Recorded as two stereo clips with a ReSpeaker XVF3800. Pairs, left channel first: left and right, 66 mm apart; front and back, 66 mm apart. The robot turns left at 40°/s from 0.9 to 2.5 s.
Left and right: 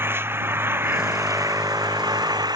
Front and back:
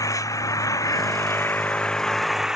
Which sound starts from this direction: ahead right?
An engine running, at 0.0 s.